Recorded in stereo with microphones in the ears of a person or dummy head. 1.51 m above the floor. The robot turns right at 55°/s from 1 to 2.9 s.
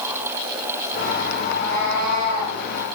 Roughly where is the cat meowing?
Behind left.